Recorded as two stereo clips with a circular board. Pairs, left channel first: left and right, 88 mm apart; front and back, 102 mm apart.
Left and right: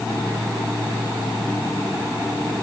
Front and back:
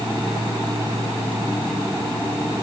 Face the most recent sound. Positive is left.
No sound to turn to.